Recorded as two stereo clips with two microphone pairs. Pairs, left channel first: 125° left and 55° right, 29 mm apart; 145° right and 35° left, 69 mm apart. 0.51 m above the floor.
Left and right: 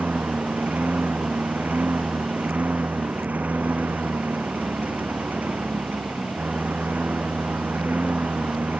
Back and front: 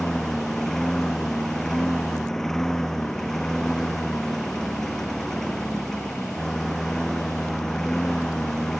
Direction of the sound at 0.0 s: 65° right.